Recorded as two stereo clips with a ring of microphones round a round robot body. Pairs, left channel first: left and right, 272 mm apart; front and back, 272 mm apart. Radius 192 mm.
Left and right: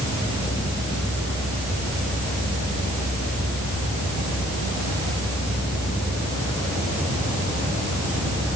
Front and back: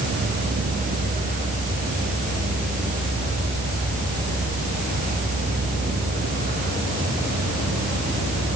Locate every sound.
Only background noise.